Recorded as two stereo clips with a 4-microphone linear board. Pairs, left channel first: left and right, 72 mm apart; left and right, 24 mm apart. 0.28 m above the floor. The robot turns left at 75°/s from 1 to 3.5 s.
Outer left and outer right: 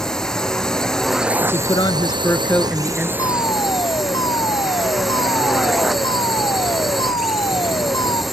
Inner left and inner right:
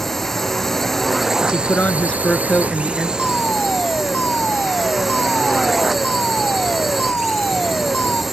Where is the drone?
5° left; by 8.3 s straight behind.